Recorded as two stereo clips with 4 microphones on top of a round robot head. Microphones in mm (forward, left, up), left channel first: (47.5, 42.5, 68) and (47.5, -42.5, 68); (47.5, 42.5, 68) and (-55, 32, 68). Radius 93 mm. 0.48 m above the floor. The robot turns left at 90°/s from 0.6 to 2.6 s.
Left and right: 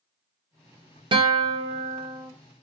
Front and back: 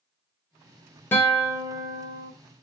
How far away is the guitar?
About 0.7 m.